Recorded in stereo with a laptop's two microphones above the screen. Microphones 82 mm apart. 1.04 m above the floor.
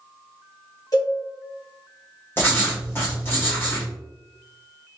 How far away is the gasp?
No gasp in this recording.